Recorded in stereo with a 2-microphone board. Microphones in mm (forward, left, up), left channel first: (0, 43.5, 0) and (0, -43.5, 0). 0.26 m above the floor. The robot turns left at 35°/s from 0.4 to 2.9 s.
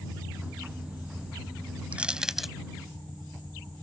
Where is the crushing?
15° right (ahead or behind); by 2.5 s centre (ahead or behind).